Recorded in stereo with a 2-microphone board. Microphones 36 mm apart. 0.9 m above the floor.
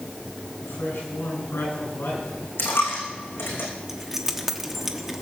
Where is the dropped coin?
75° left (ahead or behind), 4.5 m.